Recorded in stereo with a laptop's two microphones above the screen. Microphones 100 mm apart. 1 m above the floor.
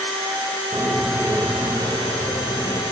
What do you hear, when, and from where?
0.7 s a bird: 15° left (ahead or behind), 1.3 m